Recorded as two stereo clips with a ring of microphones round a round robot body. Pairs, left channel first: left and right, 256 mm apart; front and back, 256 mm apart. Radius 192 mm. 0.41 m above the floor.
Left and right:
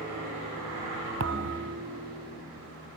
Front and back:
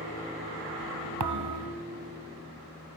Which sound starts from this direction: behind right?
A thud, at 1.2 s.